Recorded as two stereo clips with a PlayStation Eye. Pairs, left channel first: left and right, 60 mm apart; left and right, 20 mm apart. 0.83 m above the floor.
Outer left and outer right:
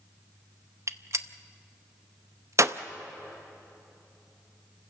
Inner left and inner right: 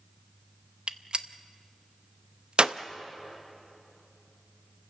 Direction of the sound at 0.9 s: 55° right (ahead or behind).